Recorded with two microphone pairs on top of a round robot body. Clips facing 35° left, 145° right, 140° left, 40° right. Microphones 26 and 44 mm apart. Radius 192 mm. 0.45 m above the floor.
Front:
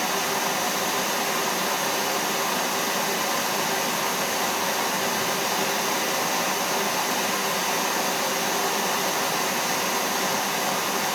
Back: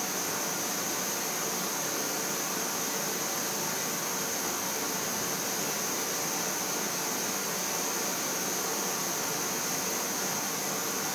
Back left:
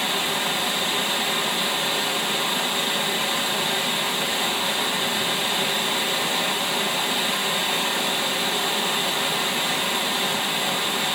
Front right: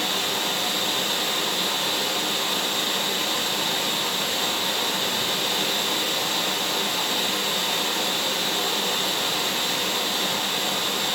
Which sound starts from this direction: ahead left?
Running water, at 0.0 s.